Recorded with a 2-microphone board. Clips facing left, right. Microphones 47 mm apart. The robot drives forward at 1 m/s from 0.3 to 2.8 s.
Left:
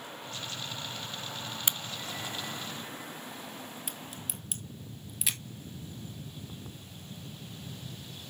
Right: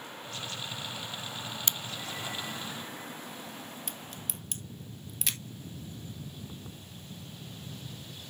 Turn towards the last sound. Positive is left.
turn(degrees=5)  # may be behind; listen again after turning